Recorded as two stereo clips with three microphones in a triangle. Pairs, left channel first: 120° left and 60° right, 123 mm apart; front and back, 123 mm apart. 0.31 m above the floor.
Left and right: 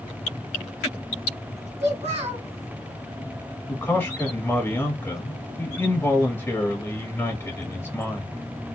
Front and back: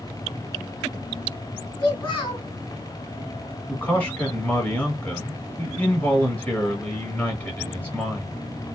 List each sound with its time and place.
1.8 s a child speaking: 40° right, 1.8 m
3.7 s a man speaking: 65° left, 1.2 m